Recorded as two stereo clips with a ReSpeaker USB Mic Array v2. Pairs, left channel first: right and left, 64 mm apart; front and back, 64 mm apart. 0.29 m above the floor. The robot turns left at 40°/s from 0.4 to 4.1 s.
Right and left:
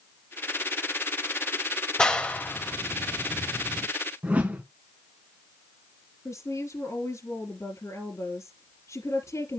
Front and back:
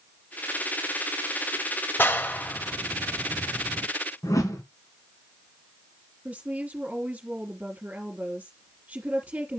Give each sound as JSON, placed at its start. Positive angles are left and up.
{"t": 2.0, "sound": "a clap", "azimuth_deg": -20, "distance_m": 0.8}
{"t": 4.2, "sound": "a whoosh", "azimuth_deg": 25, "distance_m": 1.6}
{"t": 6.2, "sound": "a woman speaking", "azimuth_deg": -110, "distance_m": 2.5}